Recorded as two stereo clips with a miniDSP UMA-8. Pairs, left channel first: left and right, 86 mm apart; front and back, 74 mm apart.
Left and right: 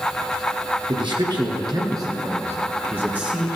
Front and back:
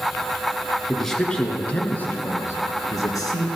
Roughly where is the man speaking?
Right.